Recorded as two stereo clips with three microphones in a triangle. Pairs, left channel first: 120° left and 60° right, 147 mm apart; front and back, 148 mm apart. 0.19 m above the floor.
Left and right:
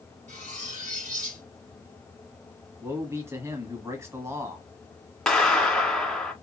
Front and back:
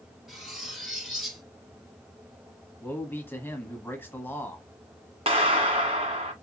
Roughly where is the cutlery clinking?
Right.